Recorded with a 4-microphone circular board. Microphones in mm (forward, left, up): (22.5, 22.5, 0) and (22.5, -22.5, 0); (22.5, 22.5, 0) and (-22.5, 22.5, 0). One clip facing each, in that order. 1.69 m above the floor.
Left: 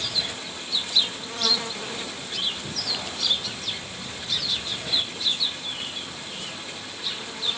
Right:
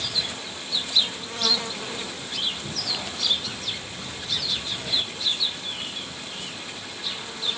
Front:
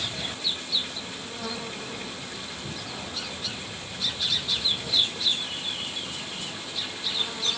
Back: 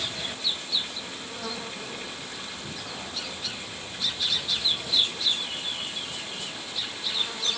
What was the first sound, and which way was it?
Only background noise.